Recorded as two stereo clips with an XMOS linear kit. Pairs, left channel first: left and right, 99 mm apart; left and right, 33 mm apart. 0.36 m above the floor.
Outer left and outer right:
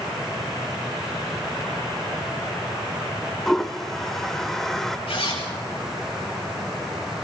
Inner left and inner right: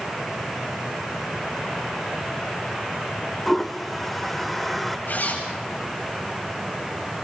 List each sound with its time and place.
3.5 s a toilet flushing: 5° left (ahead or behind), 0.9 m
5.1 s a zipper: 70° left (ahead or behind), 9 m